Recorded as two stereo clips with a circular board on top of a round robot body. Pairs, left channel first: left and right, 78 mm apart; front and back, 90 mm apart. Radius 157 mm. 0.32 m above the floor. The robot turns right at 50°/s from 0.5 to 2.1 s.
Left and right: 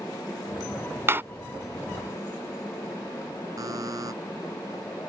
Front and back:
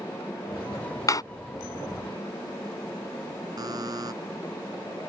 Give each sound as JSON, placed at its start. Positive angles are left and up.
{"t": 1.1, "sound": "a door slam", "azimuth_deg": -40}
{"t": 3.6, "sound": "a buzzer", "azimuth_deg": -135}